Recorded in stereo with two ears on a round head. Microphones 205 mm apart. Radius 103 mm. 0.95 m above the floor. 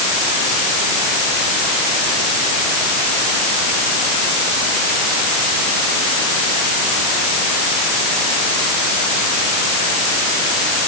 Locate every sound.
Only background noise.